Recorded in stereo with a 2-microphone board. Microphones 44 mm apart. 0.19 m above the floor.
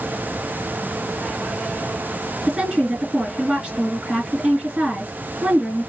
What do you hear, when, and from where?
2.5 s a woman speaking: 30° right (ahead or behind), 2.5 m